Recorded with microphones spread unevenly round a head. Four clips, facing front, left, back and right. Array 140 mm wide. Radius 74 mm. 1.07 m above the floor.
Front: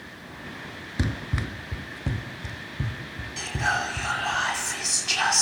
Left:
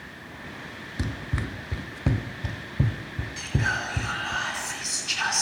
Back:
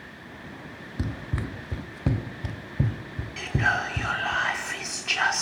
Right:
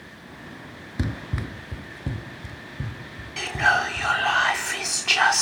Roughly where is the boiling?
No boiling in this recording.